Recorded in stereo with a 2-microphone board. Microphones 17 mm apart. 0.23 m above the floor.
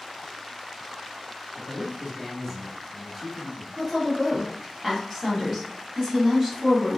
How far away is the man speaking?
About 1.1 m.